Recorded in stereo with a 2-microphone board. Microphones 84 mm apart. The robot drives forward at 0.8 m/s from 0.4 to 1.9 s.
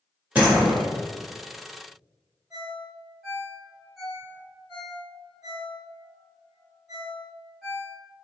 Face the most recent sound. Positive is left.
turn(degrees=0)  # may be behind; listen again after turning